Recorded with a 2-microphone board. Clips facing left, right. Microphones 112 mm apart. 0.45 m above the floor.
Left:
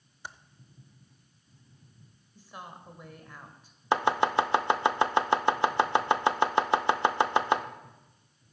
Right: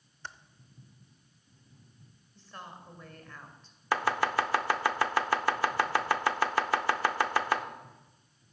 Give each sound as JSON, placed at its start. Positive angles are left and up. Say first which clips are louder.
{"t": 0.2, "sound": "typing on a keyboard", "louder": "left 1 dB", "side_deg": 10, "distance_m": 0.6}
{"t": 2.4, "sound": "a woman speaking", "louder": "left 1 dB", "side_deg": 15, "distance_m": 2.0}
{"t": 3.9, "sound": "chopping", "louder": "left 4 dB", "side_deg": 20, "distance_m": 0.7}